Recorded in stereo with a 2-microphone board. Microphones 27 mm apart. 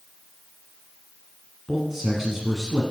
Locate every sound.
1.7 s a man speaking: 15° right (ahead or behind), 1.4 m